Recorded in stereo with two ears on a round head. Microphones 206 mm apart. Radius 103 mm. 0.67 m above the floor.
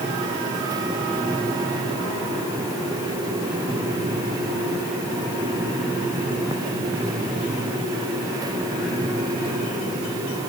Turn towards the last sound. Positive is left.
No sound to turn to.